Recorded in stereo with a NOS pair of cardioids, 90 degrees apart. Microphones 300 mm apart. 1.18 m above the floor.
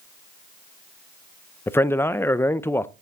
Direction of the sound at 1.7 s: 10° left.